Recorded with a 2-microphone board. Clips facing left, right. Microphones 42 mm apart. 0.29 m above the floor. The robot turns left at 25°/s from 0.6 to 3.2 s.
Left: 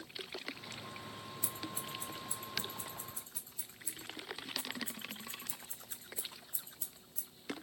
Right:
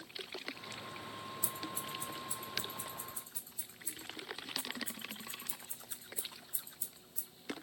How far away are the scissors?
About 1.6 m.